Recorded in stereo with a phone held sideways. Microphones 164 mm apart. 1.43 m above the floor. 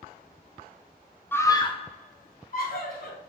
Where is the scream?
15° left (ahead or behind), 0.5 m; by 3.2 s 70° left (ahead or behind), 1.2 m.